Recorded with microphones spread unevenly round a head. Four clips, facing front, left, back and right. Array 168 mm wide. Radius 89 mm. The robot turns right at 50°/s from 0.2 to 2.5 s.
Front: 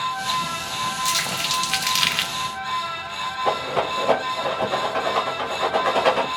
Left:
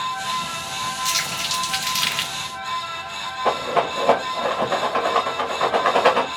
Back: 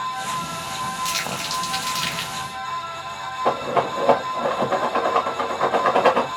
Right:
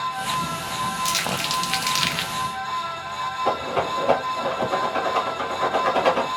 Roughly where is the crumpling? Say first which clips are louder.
Right 2 dB, front 1 dB; ahead right.